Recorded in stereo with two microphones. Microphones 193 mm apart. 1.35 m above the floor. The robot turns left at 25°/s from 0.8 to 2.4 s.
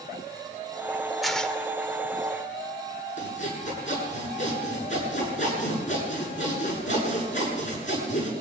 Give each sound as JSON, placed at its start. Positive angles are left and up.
{"t": 1.2, "sound": "tearing paper", "side_deg": 0, "distance_m": 1.6}
{"t": 3.2, "sound": "sawing", "side_deg": 40, "distance_m": 8.0}